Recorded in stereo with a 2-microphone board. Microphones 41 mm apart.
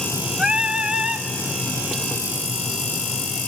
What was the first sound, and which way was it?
Singing, 20° right (ahead or behind).